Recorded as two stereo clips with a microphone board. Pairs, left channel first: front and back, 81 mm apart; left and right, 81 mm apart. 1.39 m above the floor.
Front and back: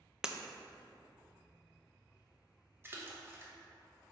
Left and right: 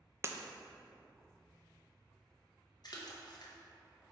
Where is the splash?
120° left, 1.1 m.